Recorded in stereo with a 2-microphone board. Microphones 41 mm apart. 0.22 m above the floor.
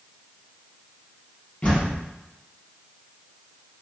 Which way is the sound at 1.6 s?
40° left (ahead or behind).